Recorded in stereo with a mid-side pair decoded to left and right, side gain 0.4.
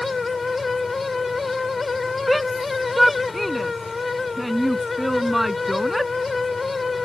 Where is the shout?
5° right.